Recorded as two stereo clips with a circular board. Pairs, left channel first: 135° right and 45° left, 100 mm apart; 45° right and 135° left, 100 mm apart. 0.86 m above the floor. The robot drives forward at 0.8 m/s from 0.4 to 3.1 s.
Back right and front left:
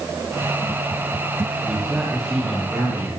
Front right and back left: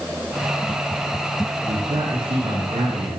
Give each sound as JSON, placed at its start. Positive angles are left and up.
{"t": 1.7, "sound": "a man speaking", "azimuth_deg": 130, "distance_m": 6.5}